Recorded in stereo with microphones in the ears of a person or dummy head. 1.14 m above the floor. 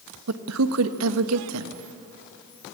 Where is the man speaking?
85° right, 1.1 m.